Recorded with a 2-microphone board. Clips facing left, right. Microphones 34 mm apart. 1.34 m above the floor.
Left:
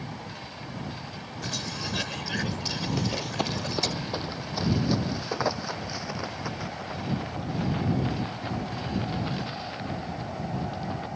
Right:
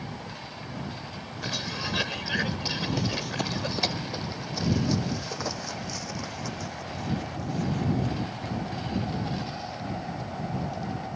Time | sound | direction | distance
1.4 | a cough | 15° right (ahead or behind) | ?
3.0 | running footsteps | 10° left (ahead or behind) | ?